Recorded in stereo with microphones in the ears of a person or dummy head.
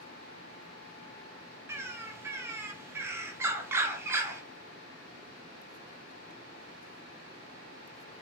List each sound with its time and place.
1.7 s a bird: 15° right (ahead or behind), 0.5 m